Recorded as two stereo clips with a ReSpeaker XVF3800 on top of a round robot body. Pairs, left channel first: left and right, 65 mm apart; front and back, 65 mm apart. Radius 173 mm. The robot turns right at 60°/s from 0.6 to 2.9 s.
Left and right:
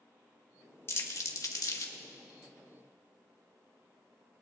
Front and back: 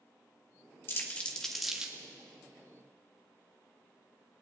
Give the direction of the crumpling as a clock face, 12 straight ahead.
10 o'clock.